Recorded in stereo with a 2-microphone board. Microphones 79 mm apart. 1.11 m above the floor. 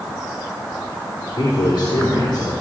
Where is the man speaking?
60° left (ahead or behind), 3.5 m.